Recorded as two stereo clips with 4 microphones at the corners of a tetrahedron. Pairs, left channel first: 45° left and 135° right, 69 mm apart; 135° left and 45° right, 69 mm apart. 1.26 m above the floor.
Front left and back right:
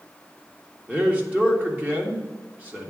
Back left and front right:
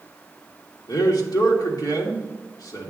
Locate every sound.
0.9 s a man speaking: 160° left, 1.6 m